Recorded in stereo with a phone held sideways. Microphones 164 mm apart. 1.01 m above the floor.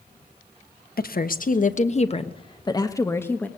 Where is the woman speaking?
65° left (ahead or behind), 1.2 m; by 3.5 s 10° left (ahead or behind), 1.4 m.